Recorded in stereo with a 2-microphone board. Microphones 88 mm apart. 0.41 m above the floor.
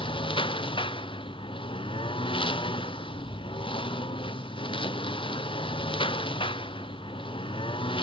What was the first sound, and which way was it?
A lawn mower, 75° left (ahead or behind).